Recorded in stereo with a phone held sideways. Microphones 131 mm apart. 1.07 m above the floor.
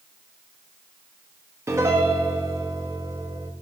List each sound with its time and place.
1.7 s a piano: 20° right (ahead or behind), 1.3 m